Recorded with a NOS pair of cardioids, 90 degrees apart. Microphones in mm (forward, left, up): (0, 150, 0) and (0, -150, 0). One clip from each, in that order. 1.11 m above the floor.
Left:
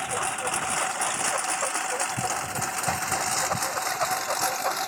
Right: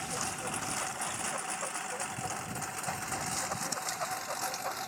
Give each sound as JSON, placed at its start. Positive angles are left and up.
{"t": 0.0, "sound": "a lawn mower", "azimuth_deg": 65}